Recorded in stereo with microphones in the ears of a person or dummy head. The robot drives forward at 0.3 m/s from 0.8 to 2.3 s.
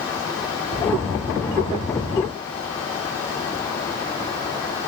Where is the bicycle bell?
I don't hear a bicycle bell.